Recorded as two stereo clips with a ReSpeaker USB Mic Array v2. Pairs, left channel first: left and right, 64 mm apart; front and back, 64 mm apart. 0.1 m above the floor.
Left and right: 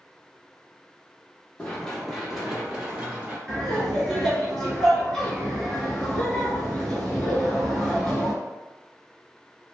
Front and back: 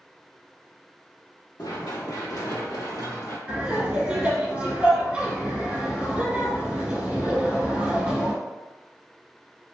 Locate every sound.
1.6 s running footsteps: 20° left, 1.0 m; by 3.4 s 20° right, 1.8 m
3.5 s laughter: 160° left, 1.5 m